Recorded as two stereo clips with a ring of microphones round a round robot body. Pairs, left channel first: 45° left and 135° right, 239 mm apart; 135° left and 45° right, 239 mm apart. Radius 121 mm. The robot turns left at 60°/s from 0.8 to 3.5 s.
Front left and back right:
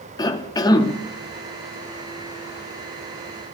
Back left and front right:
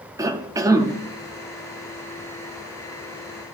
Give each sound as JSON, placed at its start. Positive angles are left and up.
{"t": 0.2, "sound": "a cough", "azimuth_deg": 5, "distance_m": 0.6}